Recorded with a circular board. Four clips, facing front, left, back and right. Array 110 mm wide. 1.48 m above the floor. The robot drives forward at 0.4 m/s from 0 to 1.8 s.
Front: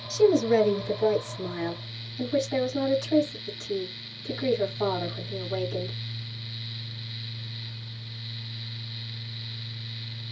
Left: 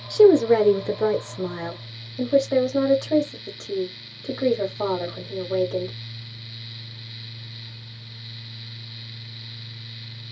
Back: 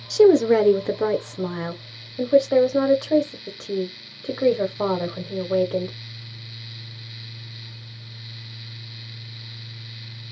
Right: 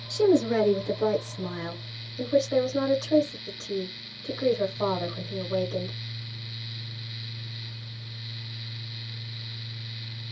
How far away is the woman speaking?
About 0.6 m.